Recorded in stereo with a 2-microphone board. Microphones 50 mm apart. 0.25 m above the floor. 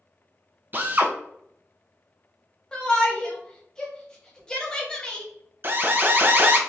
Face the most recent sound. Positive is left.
turn(degrees=-40)  # may be behind; listen again after turning